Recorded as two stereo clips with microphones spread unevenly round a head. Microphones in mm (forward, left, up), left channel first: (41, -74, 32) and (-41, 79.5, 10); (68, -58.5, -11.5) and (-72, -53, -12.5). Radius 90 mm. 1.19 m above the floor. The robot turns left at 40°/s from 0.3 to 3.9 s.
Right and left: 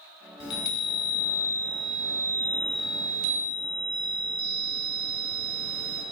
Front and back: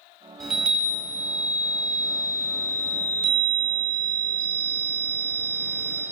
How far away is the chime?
About 1.4 m.